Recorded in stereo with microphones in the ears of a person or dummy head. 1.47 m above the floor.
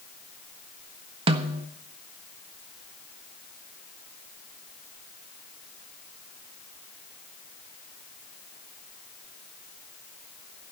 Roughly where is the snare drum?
Right.